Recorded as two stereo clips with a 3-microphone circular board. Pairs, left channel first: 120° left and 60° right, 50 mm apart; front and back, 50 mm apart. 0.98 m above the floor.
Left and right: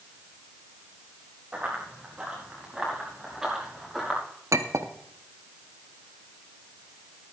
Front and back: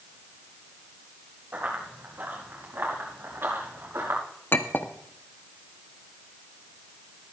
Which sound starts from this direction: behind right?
Running footsteps, at 1.5 s.